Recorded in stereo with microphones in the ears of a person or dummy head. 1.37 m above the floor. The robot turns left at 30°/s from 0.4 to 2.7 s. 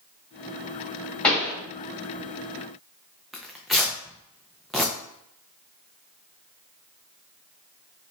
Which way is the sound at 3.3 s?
Centre (ahead or behind).